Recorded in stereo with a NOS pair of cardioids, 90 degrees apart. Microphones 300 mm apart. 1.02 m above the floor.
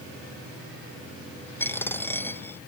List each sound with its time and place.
1.6 s a dropped coin: 5° left